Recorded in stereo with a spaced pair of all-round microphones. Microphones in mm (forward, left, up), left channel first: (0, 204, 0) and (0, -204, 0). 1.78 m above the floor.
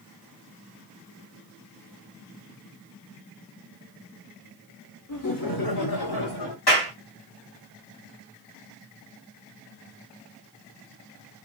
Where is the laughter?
45° left (ahead or behind), 1.3 m; by 6.6 s 70° left (ahead or behind), 1.9 m.